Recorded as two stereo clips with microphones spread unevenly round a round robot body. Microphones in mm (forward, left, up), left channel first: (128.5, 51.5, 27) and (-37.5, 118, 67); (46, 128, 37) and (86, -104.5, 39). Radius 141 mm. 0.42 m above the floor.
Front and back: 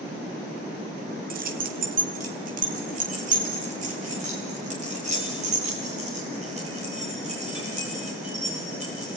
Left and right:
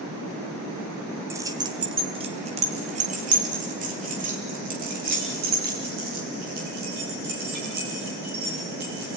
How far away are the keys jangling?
About 1.2 m.